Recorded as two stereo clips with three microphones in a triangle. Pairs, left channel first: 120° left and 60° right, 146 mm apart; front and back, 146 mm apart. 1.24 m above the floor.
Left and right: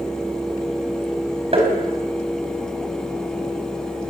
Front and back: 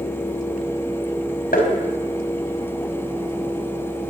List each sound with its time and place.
1.5 s tapping: 10° right, 4.5 m